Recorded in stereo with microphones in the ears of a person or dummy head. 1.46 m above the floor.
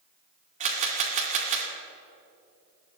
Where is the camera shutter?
40° right (ahead or behind), 2 m.